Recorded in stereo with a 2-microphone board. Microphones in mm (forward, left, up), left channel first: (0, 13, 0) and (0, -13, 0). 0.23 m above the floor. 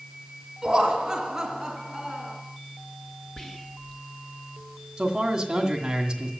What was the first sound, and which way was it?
Laughter, 25° right (ahead or behind).